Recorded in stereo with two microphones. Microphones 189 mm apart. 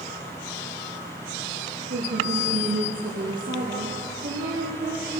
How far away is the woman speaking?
About 6 m.